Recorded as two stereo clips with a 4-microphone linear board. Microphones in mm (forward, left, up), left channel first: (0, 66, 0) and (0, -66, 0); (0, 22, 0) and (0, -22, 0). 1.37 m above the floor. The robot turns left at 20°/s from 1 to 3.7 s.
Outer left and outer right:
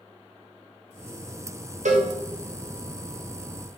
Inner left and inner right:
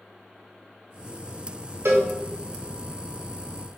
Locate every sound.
1.9 s a cowbell: 70° right (ahead or behind), 0.9 m; by 2.1 s 65° right (ahead or behind), 0.9 m